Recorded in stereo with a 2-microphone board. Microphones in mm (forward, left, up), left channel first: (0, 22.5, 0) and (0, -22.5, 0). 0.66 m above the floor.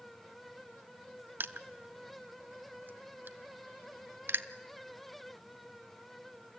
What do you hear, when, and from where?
1.4 s crushing: 45° right (ahead or behind), 0.8 m